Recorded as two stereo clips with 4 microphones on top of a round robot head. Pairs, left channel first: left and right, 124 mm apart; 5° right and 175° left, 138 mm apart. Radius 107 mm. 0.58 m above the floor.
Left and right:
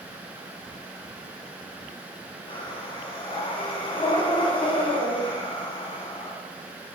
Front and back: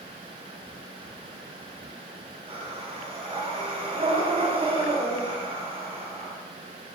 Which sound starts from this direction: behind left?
Breathing, at 2.5 s.